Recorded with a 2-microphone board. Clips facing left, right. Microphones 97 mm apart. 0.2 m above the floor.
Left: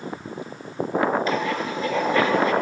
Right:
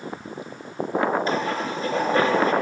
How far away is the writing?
About 2.5 m.